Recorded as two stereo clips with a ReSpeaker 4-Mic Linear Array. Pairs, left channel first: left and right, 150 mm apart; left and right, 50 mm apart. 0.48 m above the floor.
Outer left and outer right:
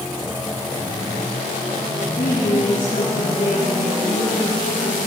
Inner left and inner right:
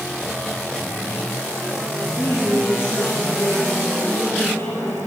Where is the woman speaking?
60° left (ahead or behind), 5 m.